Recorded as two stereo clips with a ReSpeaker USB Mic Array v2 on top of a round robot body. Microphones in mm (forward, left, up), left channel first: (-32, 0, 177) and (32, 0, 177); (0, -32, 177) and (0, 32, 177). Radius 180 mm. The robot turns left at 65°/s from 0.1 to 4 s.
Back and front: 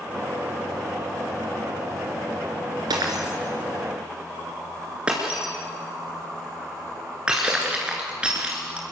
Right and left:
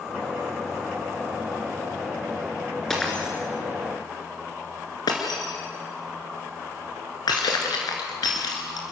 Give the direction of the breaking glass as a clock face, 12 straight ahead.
12 o'clock.